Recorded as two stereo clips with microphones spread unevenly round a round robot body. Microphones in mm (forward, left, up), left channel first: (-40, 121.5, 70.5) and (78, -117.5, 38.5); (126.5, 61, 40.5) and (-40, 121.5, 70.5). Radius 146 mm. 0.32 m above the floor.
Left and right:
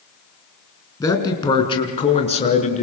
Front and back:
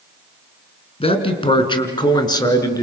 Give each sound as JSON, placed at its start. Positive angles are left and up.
{"t": 1.0, "sound": "a man speaking", "azimuth_deg": 40, "distance_m": 5.0}